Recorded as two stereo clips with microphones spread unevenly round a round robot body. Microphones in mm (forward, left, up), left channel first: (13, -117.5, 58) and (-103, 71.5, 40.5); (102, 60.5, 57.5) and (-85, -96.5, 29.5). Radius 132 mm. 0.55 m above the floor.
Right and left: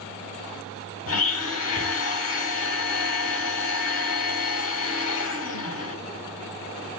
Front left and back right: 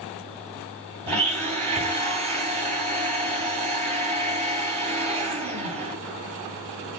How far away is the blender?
About 2.5 m.